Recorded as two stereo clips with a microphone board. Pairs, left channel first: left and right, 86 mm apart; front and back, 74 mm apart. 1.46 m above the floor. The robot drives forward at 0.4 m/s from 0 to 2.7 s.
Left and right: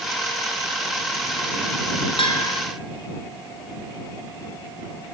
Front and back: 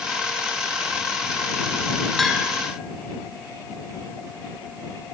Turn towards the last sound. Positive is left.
turn(degrees=95)